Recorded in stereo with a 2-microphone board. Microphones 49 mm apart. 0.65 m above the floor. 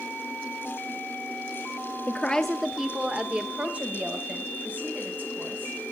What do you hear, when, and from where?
2.1 s a woman speaking: 35° left (ahead or behind), 0.8 m; by 5.8 s 40° right (ahead or behind), 4.5 m